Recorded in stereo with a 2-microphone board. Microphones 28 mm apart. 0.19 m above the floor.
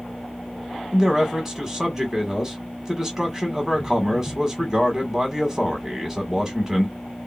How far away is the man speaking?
About 1.1 m.